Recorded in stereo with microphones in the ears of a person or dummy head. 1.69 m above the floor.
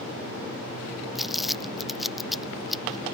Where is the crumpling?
5° left (ahead or behind).